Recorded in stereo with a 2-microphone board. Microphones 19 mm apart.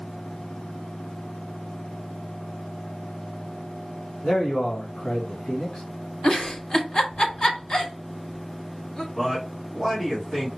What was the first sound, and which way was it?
A man speaking, 55° left (ahead or behind).